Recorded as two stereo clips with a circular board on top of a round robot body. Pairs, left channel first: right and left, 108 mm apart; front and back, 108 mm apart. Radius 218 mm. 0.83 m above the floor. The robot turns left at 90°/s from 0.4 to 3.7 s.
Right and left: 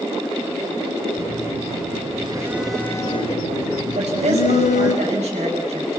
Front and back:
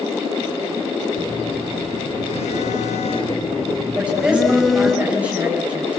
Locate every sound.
1.1 s a phone buzzing: 140° left, 1.6 m; by 5.0 s 90° right, 1.6 m
4.0 s a woman speaking: 105° left, 7 m